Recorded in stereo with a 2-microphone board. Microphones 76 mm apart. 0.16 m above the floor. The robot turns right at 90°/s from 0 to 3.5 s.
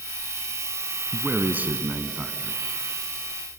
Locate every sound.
1.1 s a man speaking: 15° right (ahead or behind), 1.1 m; by 2.6 s centre (ahead or behind), 1.1 m